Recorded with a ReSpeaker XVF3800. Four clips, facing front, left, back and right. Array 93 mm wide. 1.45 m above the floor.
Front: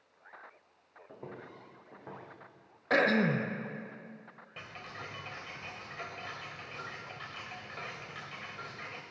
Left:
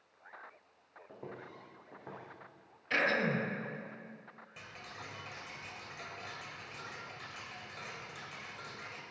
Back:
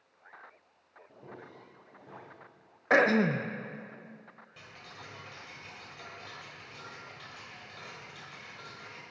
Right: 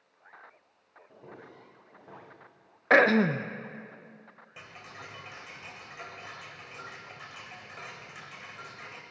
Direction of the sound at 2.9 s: 110° right.